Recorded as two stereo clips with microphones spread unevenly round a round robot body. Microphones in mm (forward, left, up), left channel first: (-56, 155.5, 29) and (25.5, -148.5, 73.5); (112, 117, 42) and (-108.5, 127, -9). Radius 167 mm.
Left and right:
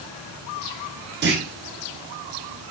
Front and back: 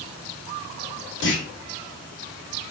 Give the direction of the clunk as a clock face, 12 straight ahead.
1 o'clock.